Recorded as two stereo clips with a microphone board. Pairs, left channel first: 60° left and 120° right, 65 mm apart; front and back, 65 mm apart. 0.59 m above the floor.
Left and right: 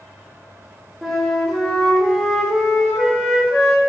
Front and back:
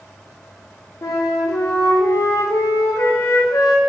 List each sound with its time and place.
1.0 s a flute: 35° right, 0.6 m